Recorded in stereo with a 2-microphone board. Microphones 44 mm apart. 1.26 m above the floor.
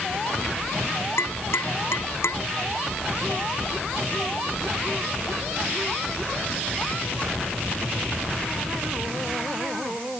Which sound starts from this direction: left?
Tapping, at 1.2 s.